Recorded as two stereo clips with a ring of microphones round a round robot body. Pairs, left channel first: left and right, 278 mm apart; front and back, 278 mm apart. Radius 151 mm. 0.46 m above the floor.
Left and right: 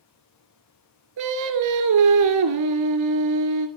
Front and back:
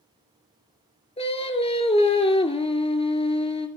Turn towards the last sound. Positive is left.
turn(degrees=-70)